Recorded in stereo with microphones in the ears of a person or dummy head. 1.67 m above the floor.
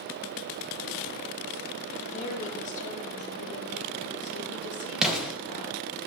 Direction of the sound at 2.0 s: 45° left (ahead or behind).